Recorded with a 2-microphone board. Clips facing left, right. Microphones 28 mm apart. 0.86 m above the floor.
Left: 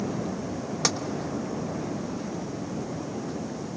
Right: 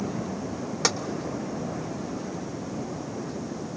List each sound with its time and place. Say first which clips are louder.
0.8 s tapping: right 1 dB; 5° right (ahead or behind), 1.0 m